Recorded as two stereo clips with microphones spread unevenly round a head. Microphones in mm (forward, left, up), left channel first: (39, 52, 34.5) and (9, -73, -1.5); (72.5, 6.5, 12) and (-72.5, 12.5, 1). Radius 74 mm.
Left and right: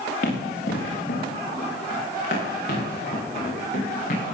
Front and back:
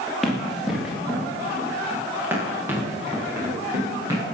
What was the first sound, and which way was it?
Running footsteps, 85° left.